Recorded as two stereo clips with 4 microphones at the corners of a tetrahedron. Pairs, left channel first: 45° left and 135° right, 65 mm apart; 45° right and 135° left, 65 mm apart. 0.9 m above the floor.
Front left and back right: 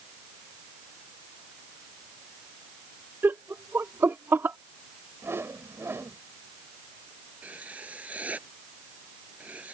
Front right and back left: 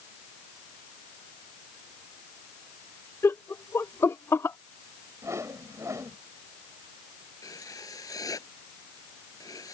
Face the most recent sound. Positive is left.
turn(degrees=-65)